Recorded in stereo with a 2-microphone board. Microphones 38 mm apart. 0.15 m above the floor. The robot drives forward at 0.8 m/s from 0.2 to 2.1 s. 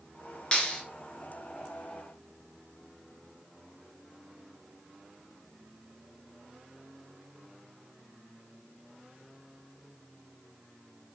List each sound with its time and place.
0.5 s a clap: 25° left (ahead or behind), 1.5 m